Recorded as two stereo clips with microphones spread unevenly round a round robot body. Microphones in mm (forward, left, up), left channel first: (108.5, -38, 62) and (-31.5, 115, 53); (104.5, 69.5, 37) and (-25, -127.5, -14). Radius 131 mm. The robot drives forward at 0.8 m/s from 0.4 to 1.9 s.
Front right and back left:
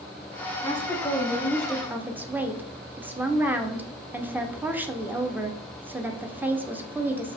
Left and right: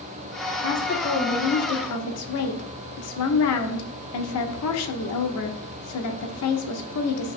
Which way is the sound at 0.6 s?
20° left.